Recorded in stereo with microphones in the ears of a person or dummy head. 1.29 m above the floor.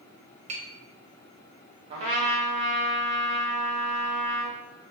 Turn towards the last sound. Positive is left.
turn(degrees=-30)  # may be behind; listen again after turning